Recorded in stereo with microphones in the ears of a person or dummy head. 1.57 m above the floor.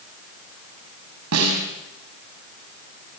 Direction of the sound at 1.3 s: 80° right.